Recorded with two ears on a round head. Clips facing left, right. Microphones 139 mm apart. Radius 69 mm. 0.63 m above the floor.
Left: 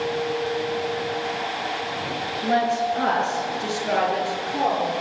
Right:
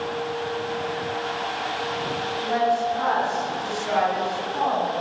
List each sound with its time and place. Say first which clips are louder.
2.4 s a woman speaking: left 1 dB; 55° left (ahead or behind), 9.5 m; by 4.9 s 45° left (ahead or behind), 10 m